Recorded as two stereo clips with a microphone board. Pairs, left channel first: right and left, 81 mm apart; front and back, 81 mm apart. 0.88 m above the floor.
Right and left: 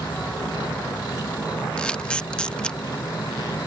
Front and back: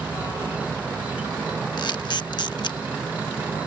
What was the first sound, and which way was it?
An insect, 110° right.